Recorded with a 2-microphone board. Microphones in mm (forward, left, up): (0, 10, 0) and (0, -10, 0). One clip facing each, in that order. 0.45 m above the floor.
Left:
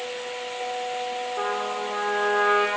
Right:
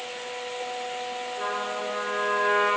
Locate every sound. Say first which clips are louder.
1.4 s a trumpet: left 1 dB; 75° left (ahead or behind), 3 m